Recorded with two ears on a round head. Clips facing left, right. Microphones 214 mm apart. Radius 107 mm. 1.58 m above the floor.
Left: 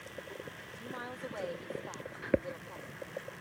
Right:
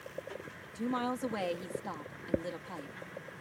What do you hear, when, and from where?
0.8 s a woman speaking: 80° right